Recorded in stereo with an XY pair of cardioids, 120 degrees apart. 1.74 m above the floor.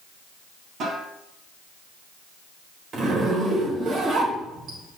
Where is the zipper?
60° right, 3.5 m.